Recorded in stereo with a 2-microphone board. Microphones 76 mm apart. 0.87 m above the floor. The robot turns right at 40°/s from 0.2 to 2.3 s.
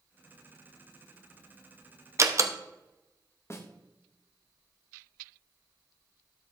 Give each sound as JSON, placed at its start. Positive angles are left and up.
{"t": 2.2, "sound": "a door slam", "side_deg": -40, "distance_m": 0.7}
{"t": 3.5, "sound": "a snare drum", "side_deg": 35, "distance_m": 1.0}